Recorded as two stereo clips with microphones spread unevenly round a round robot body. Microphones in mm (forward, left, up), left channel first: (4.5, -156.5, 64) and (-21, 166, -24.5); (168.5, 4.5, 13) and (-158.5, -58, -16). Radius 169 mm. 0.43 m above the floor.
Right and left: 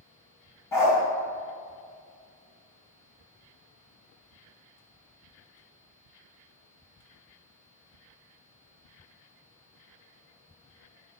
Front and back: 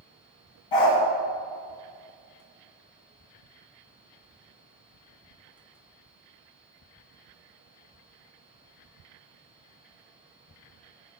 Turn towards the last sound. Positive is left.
turn(degrees=0)